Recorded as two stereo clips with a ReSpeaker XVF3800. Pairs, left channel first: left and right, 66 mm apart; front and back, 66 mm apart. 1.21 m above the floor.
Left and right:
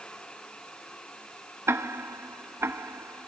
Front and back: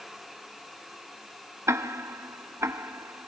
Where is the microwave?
I don't hear a microwave.